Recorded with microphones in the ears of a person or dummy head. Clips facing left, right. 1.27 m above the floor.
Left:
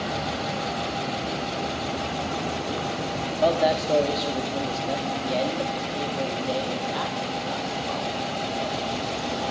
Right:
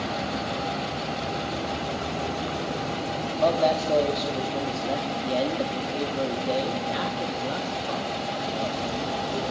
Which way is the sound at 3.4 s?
10° left (ahead or behind).